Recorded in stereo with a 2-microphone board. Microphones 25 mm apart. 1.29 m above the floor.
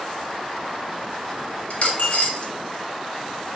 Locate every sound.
1.7 s a dropped coin: 60° left (ahead or behind), 1.6 m